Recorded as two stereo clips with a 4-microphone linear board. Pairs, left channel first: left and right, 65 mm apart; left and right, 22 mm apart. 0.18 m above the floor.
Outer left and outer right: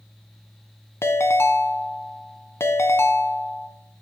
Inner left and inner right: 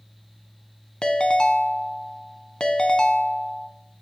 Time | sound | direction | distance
1.0 | a ringtone | 50° left (ahead or behind) | 0.6 m